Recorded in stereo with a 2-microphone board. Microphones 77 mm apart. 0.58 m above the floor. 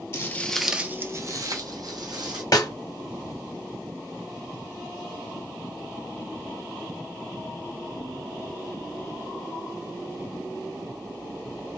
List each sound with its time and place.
0.1 s footsteps: 35° left (ahead or behind), 0.6 m; by 2.4 s 65° right (ahead or behind), 1.4 m
2.5 s a snare drum: 50° left (ahead or behind), 0.6 m